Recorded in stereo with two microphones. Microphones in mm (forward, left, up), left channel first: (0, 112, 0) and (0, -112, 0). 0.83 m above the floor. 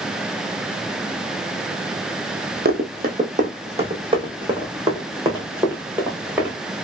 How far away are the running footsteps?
About 1.1 m.